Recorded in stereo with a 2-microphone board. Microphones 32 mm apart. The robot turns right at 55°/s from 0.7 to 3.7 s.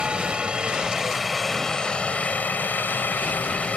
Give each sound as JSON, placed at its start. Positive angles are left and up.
{"t": 0.0, "sound": "a helicopter", "azimuth_deg": -35}